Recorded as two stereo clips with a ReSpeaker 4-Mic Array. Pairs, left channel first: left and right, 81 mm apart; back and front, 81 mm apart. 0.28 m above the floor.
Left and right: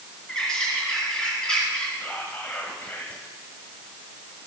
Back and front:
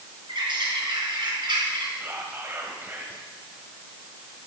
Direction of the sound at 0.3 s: 10° left.